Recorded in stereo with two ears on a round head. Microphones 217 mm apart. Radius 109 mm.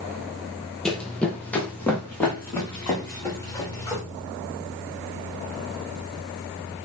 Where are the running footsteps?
5° left (ahead or behind), 0.8 m; by 4.0 s 10° left (ahead or behind), 3 m.